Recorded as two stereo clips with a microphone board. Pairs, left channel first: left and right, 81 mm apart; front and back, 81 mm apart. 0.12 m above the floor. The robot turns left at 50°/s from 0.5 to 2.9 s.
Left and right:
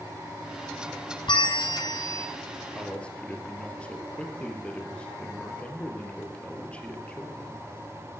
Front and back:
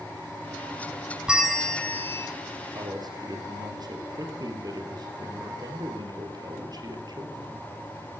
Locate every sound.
1.3 s a bell: 100° left, 1.6 m; by 2.3 s 50° left, 1.6 m
2.8 s a man speaking: 170° left, 3 m; by 7.7 s 165° left, 3 m